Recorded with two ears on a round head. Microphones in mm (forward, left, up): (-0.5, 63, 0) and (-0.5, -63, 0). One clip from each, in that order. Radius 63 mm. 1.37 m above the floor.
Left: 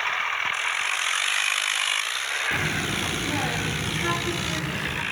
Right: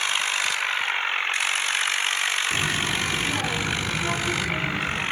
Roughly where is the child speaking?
Centre.